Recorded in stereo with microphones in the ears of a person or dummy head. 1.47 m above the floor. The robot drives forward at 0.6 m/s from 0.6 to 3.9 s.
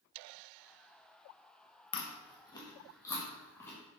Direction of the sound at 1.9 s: 25° left (ahead or behind).